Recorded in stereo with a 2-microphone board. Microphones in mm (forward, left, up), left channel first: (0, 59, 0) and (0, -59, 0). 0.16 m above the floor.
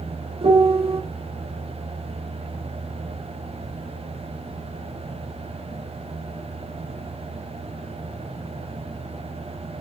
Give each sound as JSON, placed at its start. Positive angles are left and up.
{"t": 0.4, "sound": "a piano", "side_deg": -50, "distance_m": 0.6}